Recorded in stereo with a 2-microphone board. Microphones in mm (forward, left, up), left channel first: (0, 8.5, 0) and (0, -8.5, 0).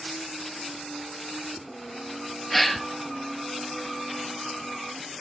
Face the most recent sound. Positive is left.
turn(degrees=5)  # may be behind; listen again after turning